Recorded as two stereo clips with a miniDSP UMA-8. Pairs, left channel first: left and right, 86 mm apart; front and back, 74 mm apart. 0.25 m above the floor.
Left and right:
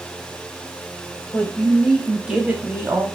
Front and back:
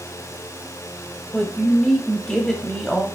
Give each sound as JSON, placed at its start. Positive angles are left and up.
{"t": 1.3, "sound": "a woman speaking", "azimuth_deg": 60, "distance_m": 1.0}